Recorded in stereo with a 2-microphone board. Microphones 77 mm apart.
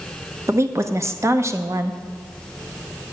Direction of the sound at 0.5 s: 35° right (ahead or behind).